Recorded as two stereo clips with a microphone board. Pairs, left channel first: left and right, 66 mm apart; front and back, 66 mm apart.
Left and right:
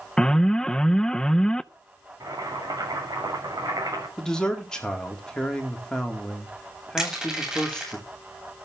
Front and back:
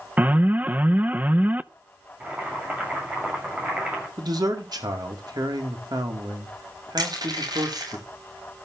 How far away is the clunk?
I don't hear a clunk.